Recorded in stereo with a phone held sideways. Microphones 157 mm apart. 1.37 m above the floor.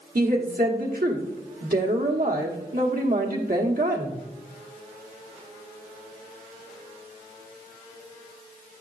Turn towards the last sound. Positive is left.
turn(degrees=-70)  # may be behind; listen again after turning